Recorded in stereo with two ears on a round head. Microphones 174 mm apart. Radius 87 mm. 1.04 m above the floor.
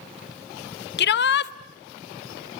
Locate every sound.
1.0 s a shout: 55° left (ahead or behind), 1.0 m